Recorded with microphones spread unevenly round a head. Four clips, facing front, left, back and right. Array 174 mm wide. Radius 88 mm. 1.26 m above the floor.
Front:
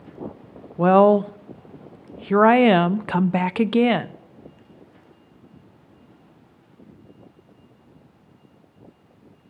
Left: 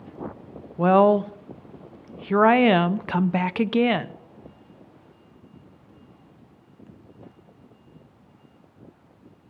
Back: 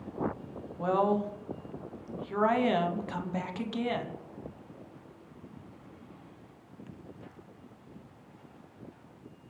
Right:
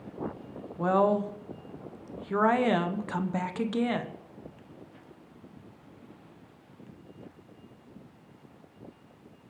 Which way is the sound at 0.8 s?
25° left.